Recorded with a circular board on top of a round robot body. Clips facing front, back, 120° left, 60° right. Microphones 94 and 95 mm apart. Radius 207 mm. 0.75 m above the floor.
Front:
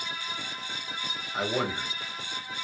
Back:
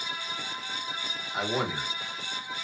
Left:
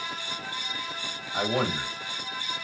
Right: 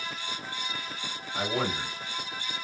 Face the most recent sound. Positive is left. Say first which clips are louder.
# front 1 dB, left 3 dB
turn(degrees=100)